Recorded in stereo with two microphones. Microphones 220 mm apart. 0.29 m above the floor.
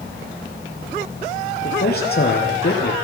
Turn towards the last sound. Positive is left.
turn(degrees=50)  # may be behind; listen again after turning